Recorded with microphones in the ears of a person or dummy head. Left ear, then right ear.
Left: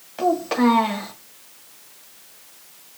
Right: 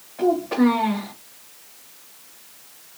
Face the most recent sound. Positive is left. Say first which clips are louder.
# even
turn(degrees=65)  # may be behind; listen again after turning